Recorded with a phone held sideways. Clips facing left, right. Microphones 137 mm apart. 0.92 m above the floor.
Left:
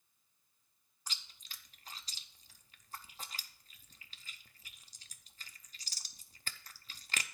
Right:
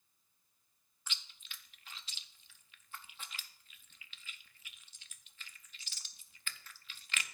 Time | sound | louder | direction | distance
1.1 | chewing | even | 35° left (ahead or behind) | 0.6 m